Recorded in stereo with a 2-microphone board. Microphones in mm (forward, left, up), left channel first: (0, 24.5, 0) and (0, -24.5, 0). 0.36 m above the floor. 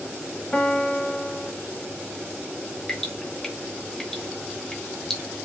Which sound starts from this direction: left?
A piano, at 0.5 s.